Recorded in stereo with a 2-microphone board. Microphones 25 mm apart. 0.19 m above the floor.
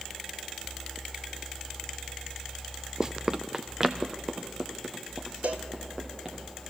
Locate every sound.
3.0 s running footsteps: 30° right (ahead or behind), 0.5 m; by 6.3 s 20° right (ahead or behind), 5 m
5.4 s a cowbell: 85° right, 2.0 m